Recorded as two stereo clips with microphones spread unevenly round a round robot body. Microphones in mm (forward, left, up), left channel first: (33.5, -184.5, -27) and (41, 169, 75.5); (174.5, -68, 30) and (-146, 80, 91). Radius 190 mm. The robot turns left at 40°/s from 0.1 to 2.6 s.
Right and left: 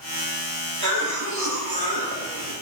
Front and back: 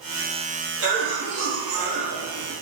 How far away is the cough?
About 1.6 m.